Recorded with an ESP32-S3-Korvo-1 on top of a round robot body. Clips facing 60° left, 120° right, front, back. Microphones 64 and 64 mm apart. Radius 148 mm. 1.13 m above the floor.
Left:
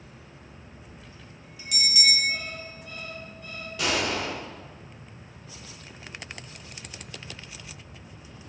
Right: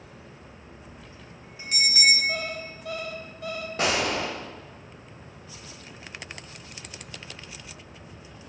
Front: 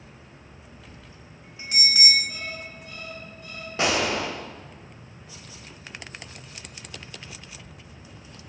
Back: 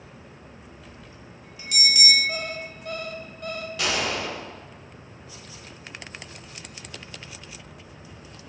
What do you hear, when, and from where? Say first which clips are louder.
0.9 s a bell: right 2 dB, back 2 dB; 65° right, 3 m
2.3 s an alarm clock: right 3 dB, back 4 dB; 140° right, 0.9 m
3.8 s a gunshot: right 1 dB, front 4 dB; 60° right, 1.5 m